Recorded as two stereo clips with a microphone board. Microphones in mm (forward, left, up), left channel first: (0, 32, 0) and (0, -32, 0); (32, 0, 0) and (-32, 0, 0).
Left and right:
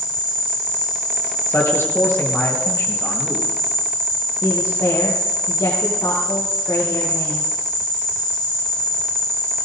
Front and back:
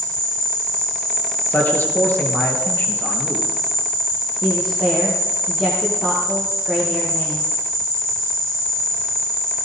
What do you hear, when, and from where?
0.0 s an insect: 10° left, 4 m
1.5 s a man speaking: 50° left, 3.5 m
4.4 s a woman speaking: 80° left, 4 m